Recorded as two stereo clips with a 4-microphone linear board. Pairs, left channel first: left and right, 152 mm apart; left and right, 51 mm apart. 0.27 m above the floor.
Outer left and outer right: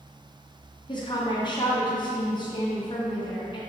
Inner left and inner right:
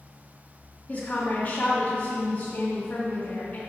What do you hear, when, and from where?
0.9 s a woman speaking: 35° left (ahead or behind), 1.7 m